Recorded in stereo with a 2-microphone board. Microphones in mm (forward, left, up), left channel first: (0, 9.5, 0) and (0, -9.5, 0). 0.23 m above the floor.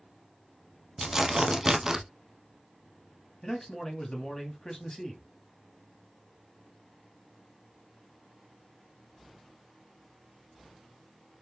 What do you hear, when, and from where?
1.0 s tearing paper: 30° right (ahead or behind), 0.5 m
3.4 s a man speaking: 35° left (ahead or behind), 1.2 m